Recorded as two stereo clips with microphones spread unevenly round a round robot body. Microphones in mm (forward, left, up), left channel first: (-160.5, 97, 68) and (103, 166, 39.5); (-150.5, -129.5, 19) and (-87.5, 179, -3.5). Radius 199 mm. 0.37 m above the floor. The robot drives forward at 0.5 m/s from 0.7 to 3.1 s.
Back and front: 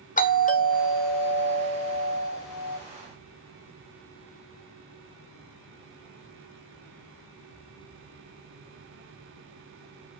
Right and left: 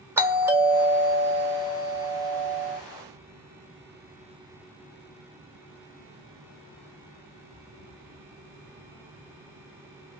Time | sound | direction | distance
0.2 | a doorbell | 150° left | 1.3 m